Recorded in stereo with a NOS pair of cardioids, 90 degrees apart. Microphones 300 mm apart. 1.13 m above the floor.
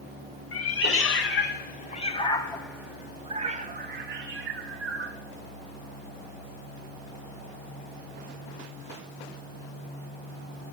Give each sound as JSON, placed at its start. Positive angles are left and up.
{"t": 0.5, "sound": "a cat meowing", "azimuth_deg": 55, "distance_m": 1.9}